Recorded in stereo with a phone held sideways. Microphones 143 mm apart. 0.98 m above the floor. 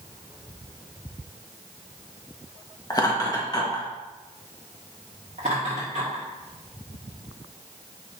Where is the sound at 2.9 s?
25° left (ahead or behind), 1.4 m.